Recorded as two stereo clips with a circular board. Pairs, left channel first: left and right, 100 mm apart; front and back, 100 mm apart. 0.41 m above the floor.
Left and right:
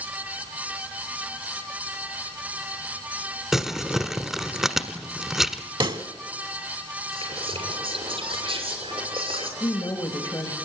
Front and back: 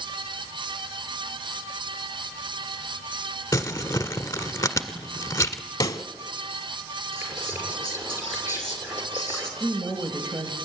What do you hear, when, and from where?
3.5 s crumpling: 10° right, 1.3 m
5.8 s a pop: 50° right, 0.8 m
7.1 s whispering: 110° right, 6 m
9.6 s a woman speaking: 135° left, 2 m